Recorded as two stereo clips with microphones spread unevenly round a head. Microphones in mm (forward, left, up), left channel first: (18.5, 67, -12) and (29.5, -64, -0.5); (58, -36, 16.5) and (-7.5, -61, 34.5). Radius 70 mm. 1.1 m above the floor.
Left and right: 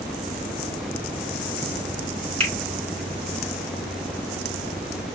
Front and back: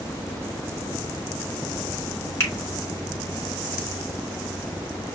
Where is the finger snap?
35° right, 3.5 m.